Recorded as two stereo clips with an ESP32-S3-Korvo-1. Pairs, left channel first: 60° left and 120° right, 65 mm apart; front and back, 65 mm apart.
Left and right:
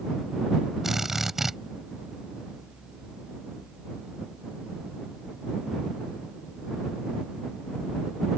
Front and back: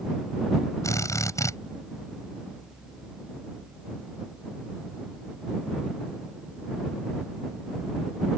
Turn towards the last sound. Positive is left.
turn(degrees=-35)